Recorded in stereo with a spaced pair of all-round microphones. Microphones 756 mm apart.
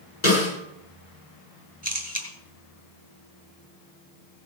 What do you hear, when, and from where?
0.2 s a snare drum: 65° left (ahead or behind), 8.5 m
1.8 s a camera shutter: 20° left (ahead or behind), 3.5 m